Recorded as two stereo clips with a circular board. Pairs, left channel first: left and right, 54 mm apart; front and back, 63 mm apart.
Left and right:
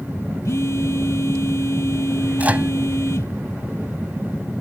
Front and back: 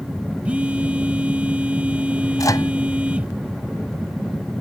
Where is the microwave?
30° right.